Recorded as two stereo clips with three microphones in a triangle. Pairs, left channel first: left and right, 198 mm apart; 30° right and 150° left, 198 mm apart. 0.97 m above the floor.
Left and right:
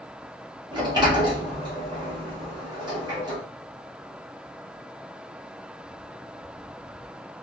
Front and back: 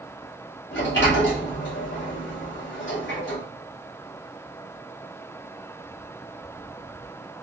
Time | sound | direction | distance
0.7 | a sliding door | 25° right | 1.4 m